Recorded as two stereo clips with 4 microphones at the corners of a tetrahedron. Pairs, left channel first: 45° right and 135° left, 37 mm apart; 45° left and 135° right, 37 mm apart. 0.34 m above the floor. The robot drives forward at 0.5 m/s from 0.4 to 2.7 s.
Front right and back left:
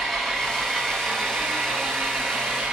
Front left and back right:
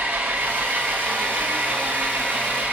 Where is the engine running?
130° right, 1.8 m; by 2.7 s 150° right, 2.5 m.